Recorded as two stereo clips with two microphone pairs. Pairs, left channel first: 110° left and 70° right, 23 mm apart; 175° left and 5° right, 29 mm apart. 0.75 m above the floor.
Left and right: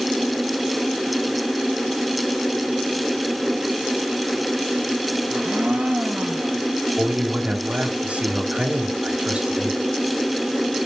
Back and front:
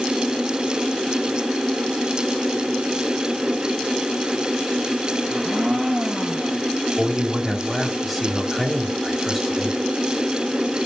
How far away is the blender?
About 5.5 m.